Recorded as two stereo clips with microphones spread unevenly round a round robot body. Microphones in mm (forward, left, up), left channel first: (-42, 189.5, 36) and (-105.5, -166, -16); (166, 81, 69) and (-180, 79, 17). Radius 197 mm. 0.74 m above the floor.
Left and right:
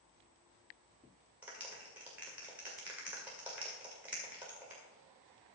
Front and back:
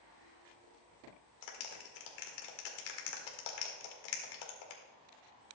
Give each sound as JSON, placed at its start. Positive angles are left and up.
{"t": 1.4, "sound": "a clap", "azimuth_deg": -15, "distance_m": 2.0}